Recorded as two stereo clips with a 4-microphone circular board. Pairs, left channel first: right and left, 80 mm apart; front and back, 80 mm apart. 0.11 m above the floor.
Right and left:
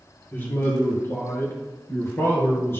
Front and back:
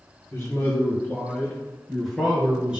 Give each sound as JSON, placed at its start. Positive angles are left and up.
{"t": 0.3, "sound": "a man speaking", "azimuth_deg": -40, "distance_m": 2.5}